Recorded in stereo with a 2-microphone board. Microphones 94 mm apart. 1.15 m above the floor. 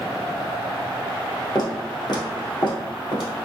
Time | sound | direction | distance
1.6 | footsteps | 45° left (ahead or behind) | 1.6 m